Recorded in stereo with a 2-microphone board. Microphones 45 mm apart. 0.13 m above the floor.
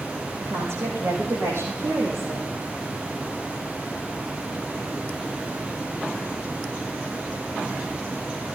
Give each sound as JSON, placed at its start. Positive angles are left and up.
{"t": 0.4, "sound": "a woman speaking", "side_deg": -75, "distance_m": 8.0}